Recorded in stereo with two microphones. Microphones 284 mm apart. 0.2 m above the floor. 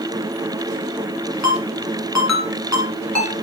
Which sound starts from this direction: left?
A ringtone, at 1.4 s.